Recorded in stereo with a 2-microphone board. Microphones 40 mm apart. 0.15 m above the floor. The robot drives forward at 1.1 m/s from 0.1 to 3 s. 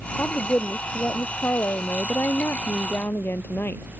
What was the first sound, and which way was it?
A woman speaking, 45° left (ahead or behind).